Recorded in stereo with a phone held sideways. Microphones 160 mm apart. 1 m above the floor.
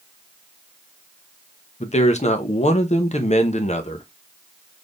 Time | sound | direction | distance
1.8 | a man speaking | 45° left (ahead or behind) | 0.7 m